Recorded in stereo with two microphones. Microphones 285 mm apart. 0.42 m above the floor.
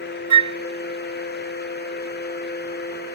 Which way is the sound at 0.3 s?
75° right (ahead or behind).